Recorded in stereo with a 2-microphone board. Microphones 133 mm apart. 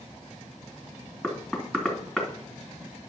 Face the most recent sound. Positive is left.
turn(degrees=0)  # may be behind; listen again after turning